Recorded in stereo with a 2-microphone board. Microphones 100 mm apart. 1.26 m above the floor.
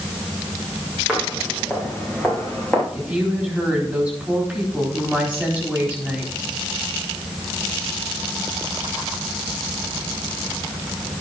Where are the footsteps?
Centre (ahead or behind), 5 m; by 2.8 s 15° left (ahead or behind), 6 m.